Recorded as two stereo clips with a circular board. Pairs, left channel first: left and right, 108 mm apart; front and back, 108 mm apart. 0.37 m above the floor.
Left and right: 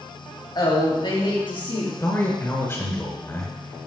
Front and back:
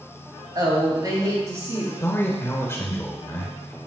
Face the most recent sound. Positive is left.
turn(degrees=45)